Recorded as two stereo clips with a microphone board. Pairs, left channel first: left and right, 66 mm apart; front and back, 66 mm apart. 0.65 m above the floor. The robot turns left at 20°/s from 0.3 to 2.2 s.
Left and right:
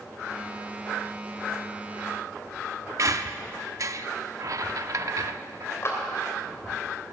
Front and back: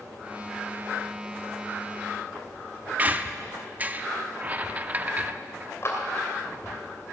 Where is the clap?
45° left, 3 m.